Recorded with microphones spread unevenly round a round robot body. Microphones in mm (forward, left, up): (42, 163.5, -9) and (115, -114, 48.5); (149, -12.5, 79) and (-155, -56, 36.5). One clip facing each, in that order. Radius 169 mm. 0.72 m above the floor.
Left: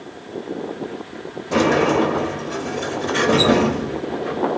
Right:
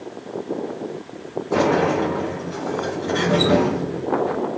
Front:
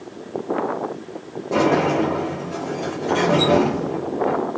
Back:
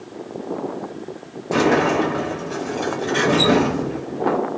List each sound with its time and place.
1.5 s a sliding door: 130° left, 0.6 m